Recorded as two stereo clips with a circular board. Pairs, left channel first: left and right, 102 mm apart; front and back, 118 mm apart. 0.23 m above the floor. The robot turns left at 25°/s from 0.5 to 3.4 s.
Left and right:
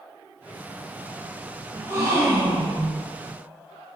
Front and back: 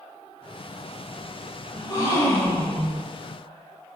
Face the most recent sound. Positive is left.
turn(degrees=-70)